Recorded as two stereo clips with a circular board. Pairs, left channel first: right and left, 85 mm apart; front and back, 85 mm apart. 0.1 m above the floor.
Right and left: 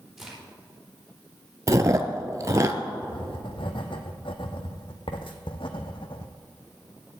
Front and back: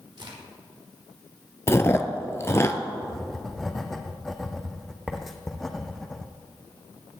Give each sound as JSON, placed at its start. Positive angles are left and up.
{"t": 0.2, "sound": "a crack", "azimuth_deg": 175, "distance_m": 4.0}
{"t": 1.7, "sound": "chewing", "azimuth_deg": 50, "distance_m": 0.7}
{"t": 3.0, "sound": "writing", "azimuth_deg": -90, "distance_m": 1.1}